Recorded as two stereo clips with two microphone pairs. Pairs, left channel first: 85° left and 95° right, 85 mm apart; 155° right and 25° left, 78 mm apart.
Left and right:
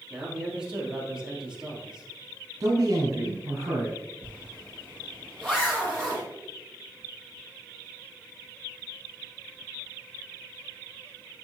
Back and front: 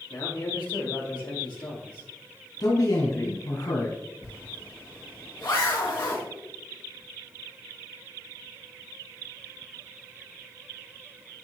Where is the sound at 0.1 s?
Straight behind, 3.5 m.